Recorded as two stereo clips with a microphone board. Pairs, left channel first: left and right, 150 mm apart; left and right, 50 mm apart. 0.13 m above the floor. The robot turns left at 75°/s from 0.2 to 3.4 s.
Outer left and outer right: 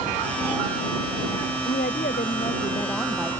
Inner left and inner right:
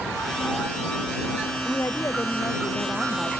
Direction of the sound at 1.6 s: 110° left.